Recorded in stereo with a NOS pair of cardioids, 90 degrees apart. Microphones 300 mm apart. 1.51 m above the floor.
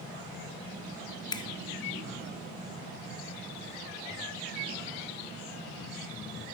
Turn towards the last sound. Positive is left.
turn(degrees=15)